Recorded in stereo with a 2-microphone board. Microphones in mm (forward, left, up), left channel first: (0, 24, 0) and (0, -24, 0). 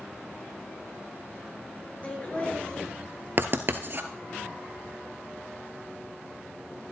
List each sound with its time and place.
2.0 s laughter: 30° left (ahead or behind), 2.5 m
3.4 s writing: 50° right (ahead or behind), 0.9 m